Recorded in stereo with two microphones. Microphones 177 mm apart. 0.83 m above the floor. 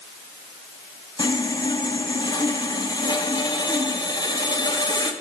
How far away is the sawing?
About 0.8 m.